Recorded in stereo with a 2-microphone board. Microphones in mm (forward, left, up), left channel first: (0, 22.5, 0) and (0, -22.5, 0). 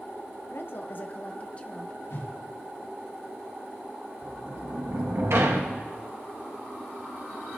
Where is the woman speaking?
60° left (ahead or behind), 0.7 m; by 2.0 s 20° left (ahead or behind), 1.2 m.